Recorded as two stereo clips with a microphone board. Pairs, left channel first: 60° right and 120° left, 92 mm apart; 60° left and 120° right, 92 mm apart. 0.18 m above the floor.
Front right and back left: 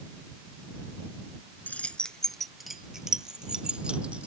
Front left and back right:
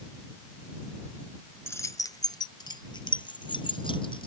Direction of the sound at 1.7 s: 5° left.